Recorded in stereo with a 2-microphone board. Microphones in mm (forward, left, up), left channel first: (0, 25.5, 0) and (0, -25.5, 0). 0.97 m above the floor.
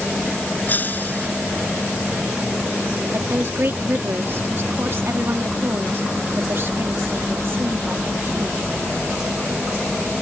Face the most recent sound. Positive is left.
turn(degrees=-50)  # may be behind; listen again after turning